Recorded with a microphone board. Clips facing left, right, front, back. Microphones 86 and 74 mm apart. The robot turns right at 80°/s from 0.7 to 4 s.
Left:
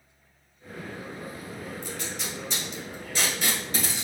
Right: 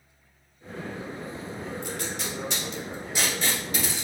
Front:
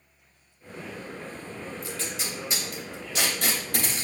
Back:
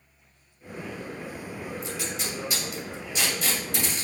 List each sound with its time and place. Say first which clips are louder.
1.8 s tape being pulled: right 3 dB, back 2 dB; 120° right, 2 m; by 4.0 s 55° left, 2 m